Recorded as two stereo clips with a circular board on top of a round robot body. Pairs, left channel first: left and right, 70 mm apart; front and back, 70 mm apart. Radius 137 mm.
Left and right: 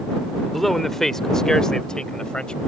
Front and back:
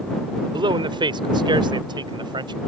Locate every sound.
0.5 s a man speaking: straight behind; by 2.6 s 170° left